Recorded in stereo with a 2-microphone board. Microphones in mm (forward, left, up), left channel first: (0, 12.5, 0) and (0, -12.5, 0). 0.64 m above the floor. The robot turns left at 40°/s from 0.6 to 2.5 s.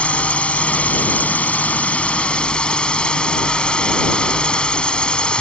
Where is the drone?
115° left; by 5.4 s 40° left.